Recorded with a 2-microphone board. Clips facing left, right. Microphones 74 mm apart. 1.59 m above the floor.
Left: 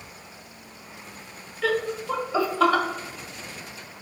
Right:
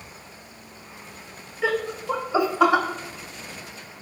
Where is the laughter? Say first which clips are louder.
Even; 15° right (ahead or behind), 0.7 m.